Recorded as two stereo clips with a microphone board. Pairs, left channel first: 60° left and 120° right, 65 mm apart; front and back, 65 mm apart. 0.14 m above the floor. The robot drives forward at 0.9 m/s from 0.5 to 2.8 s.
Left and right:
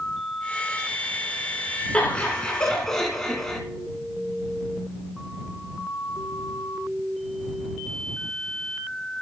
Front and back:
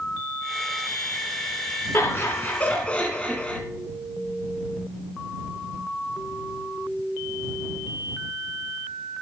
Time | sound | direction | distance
1.9 | laughter | 5° right | 2 m